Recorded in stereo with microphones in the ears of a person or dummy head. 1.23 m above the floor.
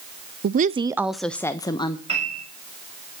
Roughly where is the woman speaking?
Right.